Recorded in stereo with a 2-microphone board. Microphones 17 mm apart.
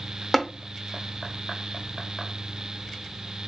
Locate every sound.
0.3 s tapping: 10° left (ahead or behind), 0.6 m